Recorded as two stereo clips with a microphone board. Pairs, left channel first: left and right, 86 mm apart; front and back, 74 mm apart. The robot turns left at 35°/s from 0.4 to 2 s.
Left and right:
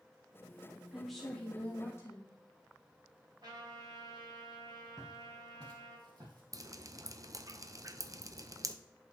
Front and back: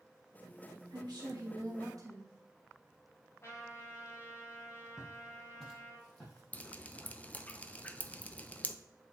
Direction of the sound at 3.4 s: 55° right.